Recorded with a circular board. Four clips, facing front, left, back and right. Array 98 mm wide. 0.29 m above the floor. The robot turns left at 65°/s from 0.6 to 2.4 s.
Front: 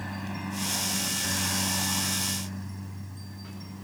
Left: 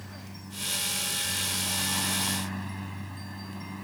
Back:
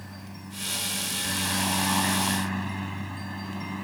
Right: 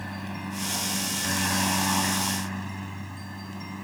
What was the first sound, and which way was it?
A helicopter, 50° right.